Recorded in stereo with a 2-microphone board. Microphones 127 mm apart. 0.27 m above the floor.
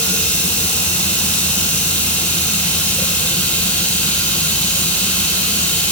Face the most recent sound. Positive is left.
turn(degrees=10)  # may be behind; listen again after turning